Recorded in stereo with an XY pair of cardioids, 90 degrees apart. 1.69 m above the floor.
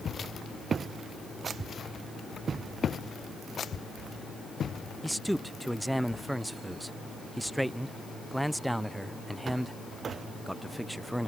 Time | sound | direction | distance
5.0 | a man speaking | 5° right | ?